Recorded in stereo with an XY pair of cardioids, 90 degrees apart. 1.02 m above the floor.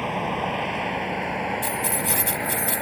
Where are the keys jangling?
Straight ahead.